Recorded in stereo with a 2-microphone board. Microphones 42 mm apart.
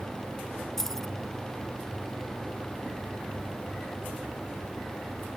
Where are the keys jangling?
10° left (ahead or behind), 0.8 m.